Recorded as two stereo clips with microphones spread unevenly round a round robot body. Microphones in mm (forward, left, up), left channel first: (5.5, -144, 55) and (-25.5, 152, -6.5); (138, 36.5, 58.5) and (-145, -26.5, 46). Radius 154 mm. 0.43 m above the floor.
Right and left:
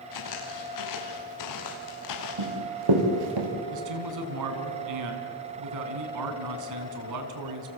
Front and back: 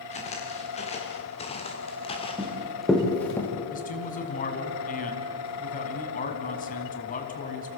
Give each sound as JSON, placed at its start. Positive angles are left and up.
{"t": 0.1, "sound": "footsteps", "azimuth_deg": -55, "distance_m": 5.5}
{"t": 2.4, "sound": "running footsteps", "azimuth_deg": 105, "distance_m": 6.0}
{"t": 3.7, "sound": "a man speaking", "azimuth_deg": 75, "distance_m": 3.5}